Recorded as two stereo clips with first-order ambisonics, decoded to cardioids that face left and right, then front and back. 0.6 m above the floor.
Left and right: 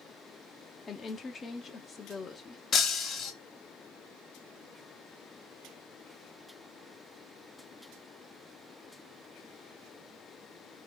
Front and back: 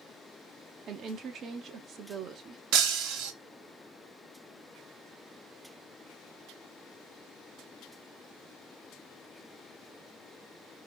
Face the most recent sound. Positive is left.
turn(degrees=150)